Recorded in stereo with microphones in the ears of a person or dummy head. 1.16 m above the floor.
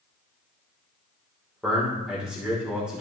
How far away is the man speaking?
About 3 m.